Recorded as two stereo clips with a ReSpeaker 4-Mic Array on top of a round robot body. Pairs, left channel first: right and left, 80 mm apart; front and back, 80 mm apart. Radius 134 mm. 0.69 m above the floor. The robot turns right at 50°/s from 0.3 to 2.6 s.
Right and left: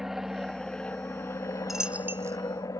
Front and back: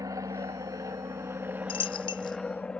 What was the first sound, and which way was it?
An aircraft, 175° left.